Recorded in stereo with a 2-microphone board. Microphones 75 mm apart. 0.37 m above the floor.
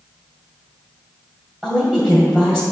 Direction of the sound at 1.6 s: 10° right (ahead or behind).